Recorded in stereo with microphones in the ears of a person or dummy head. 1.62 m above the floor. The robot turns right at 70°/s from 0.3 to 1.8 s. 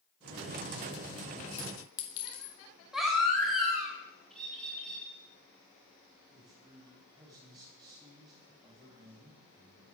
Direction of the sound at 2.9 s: Centre (ahead or behind).